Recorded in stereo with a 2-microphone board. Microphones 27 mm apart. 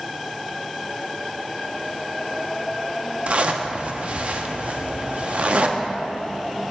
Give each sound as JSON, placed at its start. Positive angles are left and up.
{"t": 3.3, "sound": "a zipper", "side_deg": -50, "distance_m": 0.6}